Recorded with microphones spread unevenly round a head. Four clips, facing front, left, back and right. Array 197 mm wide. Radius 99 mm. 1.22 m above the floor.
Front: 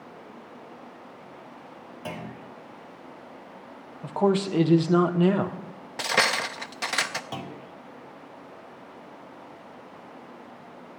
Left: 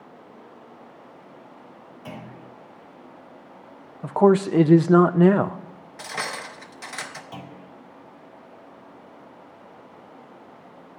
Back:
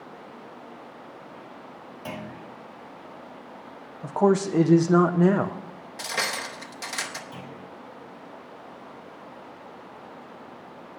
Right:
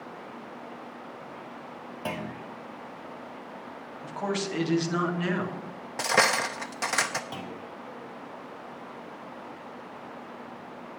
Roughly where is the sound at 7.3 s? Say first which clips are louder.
Right 2 dB, front 3 dB; ahead right.